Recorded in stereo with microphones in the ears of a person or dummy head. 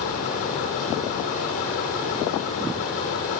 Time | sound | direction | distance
0.0 | a fan | 45° left (ahead or behind) | 9 m